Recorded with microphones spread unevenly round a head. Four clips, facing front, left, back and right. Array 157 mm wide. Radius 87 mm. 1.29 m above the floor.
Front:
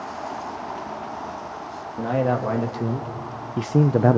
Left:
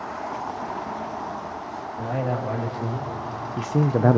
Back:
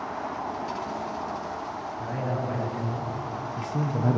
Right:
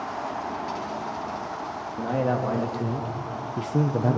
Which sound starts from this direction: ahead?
A man speaking, at 2.0 s.